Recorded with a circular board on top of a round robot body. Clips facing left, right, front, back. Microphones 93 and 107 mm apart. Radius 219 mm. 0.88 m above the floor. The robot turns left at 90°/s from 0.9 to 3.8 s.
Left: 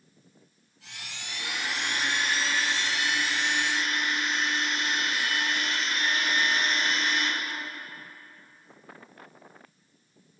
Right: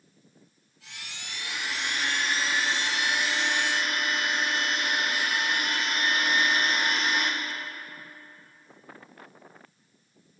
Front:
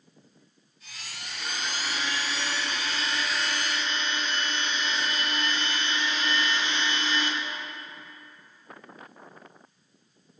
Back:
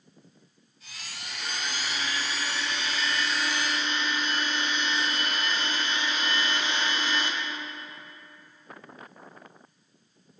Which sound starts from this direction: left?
A blender, at 1.3 s.